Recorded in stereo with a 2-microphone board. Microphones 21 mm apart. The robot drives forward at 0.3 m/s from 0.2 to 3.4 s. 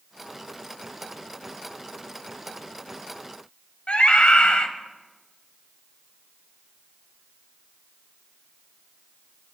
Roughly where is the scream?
Left.